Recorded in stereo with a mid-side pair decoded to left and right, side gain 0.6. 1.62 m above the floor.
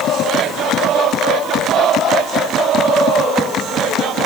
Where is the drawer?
I don't hear a drawer.